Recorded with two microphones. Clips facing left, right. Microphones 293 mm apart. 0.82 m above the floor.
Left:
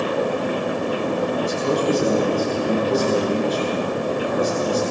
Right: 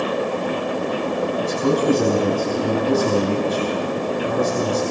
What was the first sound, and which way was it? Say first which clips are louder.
A man speaking: right 2 dB; 70° right (ahead or behind).